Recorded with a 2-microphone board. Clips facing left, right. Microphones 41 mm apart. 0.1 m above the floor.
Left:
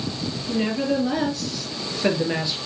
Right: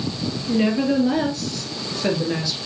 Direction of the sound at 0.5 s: 20° right (ahead or behind).